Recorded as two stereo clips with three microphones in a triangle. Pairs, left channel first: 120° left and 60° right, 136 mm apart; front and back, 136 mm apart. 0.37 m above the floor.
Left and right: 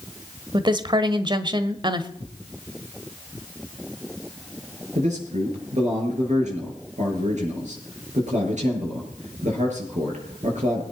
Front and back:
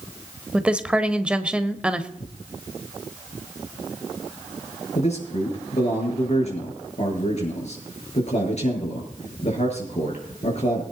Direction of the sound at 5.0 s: 35° right.